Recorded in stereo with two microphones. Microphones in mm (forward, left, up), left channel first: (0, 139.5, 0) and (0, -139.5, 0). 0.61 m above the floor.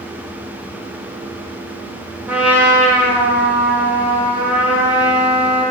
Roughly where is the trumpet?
Centre.